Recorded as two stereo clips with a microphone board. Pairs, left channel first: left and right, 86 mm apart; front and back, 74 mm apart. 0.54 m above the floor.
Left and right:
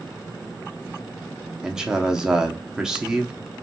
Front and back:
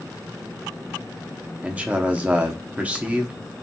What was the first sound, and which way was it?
A man speaking, 155° right.